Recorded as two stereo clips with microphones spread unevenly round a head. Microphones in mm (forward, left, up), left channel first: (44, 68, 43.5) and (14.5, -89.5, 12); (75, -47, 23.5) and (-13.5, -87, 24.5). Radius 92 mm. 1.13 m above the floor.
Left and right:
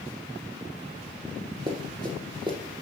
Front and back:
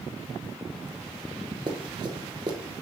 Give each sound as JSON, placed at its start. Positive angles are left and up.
{"t": 1.7, "sound": "running footsteps", "azimuth_deg": -165, "distance_m": 1.3}